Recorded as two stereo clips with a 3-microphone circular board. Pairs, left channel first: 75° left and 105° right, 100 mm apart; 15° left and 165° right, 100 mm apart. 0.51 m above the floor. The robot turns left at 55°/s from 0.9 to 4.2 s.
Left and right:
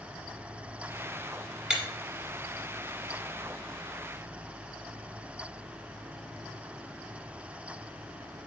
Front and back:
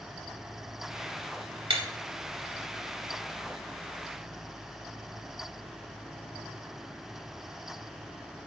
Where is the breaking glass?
170° left, 0.9 m; by 1.8 s 165° left, 0.9 m.